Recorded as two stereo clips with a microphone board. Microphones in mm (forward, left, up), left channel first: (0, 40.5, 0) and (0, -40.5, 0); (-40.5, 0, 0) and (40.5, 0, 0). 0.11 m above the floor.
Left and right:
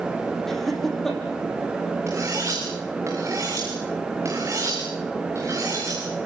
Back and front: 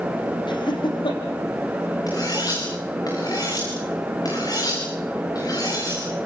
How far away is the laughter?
About 5 m.